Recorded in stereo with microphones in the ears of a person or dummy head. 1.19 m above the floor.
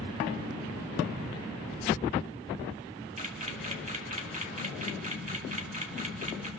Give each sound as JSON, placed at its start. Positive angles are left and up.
{"t": 3.2, "sound": "a camera shutter", "side_deg": -35, "distance_m": 2.5}